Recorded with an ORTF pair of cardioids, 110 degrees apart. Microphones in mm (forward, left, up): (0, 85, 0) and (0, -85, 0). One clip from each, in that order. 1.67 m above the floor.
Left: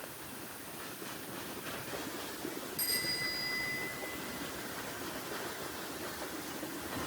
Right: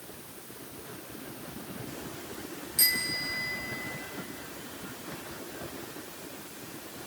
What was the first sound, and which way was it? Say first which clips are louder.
A bicycle bell: right 7 dB; 65° right.